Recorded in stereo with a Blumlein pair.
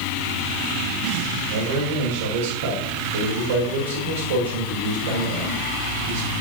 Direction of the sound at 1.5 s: 60° right.